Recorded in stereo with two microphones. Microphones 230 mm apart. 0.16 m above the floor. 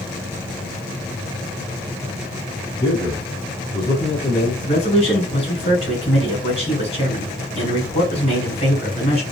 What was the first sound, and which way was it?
A man speaking, 20° left (ahead or behind).